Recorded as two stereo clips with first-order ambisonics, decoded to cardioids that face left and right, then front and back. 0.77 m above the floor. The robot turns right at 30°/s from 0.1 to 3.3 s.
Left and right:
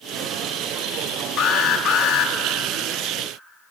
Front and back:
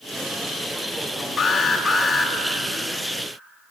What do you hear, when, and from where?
1.4 s an alarm: 60° left, 1.7 m; by 2.3 s 90° left, 1.7 m